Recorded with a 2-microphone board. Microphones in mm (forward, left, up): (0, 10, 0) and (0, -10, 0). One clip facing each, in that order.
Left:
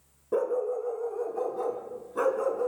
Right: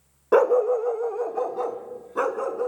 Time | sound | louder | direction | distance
0.3 | a dog barking | right 9 dB | 70° right (ahead or behind) | 0.5 m